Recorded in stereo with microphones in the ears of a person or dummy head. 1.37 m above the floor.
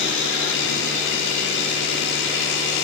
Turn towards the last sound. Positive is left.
turn(degrees=65)  # may be behind; listen again after turning